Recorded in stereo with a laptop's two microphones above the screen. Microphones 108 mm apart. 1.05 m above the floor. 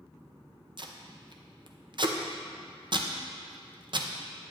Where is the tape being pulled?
50° right (ahead or behind), 0.6 m.